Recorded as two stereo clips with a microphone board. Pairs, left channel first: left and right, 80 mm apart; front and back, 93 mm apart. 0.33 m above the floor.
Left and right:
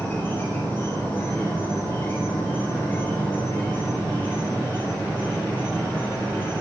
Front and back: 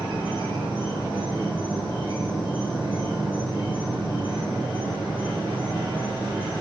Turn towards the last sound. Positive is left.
turn(degrees=155)